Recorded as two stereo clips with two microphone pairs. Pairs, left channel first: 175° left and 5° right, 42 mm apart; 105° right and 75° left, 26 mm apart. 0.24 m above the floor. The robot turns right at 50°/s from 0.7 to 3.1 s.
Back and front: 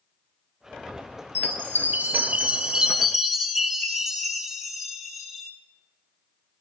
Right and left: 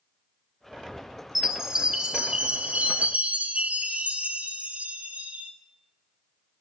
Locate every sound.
1.4 s a chime: straight ahead, 0.8 m; by 5.5 s 90° left, 0.8 m